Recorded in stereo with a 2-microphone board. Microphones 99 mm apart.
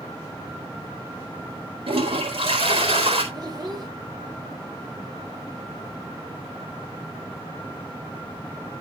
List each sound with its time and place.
1.9 s a toilet flushing: 75° right (ahead or behind), 4 m
3.3 s a child speaking: 40° right (ahead or behind), 2.5 m